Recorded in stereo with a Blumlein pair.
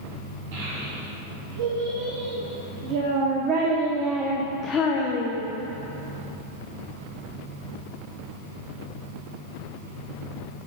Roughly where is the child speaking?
Ahead right.